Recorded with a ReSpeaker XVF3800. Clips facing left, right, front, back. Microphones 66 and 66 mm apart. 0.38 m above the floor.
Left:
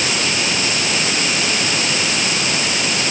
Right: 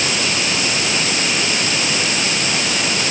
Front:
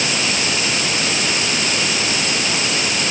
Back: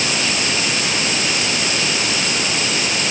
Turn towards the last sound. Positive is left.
No sound to turn to.